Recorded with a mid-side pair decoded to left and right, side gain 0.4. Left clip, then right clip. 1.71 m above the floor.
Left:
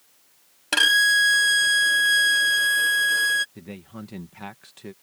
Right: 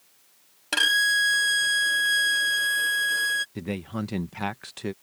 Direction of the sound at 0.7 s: 25° left.